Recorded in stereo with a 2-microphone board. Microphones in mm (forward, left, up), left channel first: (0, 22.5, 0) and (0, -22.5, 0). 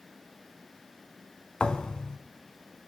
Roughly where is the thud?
Centre.